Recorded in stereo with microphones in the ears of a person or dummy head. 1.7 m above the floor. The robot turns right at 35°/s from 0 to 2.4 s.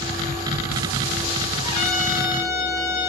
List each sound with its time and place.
1.6 s a trumpet: 20° left (ahead or behind), 2 m; by 3.1 s 35° left (ahead or behind), 2 m